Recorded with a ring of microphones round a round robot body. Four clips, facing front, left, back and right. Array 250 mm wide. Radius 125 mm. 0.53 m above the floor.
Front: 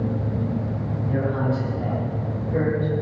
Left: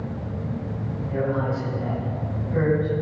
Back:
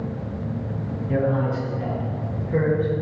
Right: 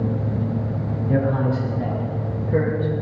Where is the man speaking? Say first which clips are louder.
Right 4 dB, back 2 dB; 105° right, 7.5 m; by 2.9 s 110° right, 8.5 m.